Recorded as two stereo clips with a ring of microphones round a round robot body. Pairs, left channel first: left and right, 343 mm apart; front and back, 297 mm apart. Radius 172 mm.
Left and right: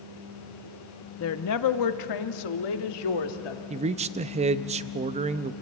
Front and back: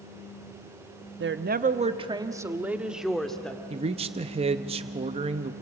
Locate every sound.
1.2 s a woman speaking: 135° left, 0.9 m; by 3.6 s 85° left, 2.0 m
3.7 s a man speaking: 135° right, 0.5 m